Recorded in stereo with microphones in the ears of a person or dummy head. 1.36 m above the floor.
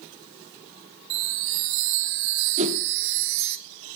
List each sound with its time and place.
1.1 s a chime: 60° right (ahead or behind), 0.8 m
2.6 s a whoosh: 35° right (ahead or behind), 1.6 m